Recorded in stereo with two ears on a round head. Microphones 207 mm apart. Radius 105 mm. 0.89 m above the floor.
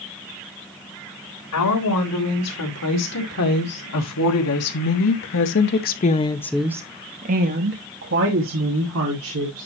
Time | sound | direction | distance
1.5 | a woman speaking | 85° left | 3.5 m